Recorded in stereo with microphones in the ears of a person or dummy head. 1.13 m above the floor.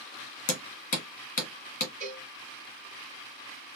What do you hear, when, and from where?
0.5 s hammering: 35° left (ahead or behind), 1.1 m
2.0 s a cowbell: 15° left (ahead or behind), 3 m